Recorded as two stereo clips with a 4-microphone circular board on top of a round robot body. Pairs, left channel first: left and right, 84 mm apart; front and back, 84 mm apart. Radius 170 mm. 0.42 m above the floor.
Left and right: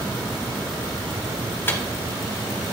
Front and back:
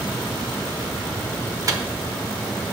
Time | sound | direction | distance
1.7 | a microwave | 145° left | 0.9 m